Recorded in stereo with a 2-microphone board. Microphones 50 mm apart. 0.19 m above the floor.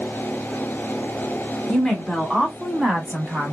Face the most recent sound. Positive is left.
turn(degrees=-25)  # may be behind; listen again after turning